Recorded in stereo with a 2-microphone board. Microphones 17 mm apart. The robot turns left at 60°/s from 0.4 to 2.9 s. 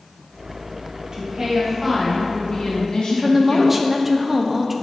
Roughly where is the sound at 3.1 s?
Centre.